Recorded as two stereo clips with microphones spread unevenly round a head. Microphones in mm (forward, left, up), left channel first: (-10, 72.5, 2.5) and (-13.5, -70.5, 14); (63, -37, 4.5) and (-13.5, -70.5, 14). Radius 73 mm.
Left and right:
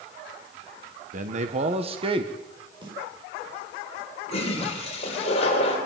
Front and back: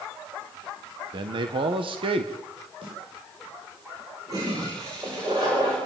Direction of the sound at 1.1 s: 130° right.